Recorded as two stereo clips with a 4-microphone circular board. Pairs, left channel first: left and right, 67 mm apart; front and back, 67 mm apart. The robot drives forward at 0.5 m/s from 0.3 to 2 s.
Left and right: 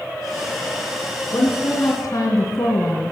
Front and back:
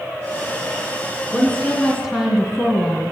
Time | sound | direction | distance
1.3 | a woman speaking | 85° left | 1.9 m